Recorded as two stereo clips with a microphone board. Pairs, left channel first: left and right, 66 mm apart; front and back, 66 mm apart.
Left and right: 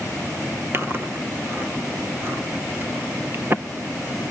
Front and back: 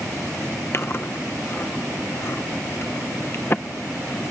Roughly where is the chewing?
Ahead right.